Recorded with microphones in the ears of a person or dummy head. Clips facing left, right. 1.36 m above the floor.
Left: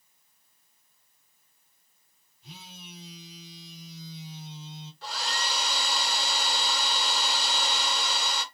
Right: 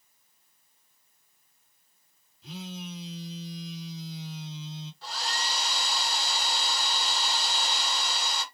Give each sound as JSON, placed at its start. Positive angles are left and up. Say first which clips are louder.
{"t": 2.4, "sound": "a phone buzzing", "louder": "right 10 dB", "side_deg": -55, "distance_m": 1.4}
{"t": 5.0, "sound": "a hair dryer", "louder": "left 2 dB", "side_deg": 50, "distance_m": 2.5}